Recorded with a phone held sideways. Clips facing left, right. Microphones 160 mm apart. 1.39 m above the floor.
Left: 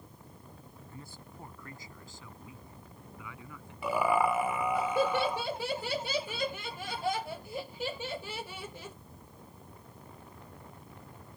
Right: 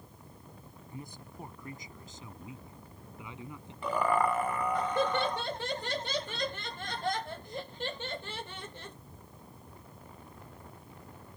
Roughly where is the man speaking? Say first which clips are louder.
Right 5 dB; centre.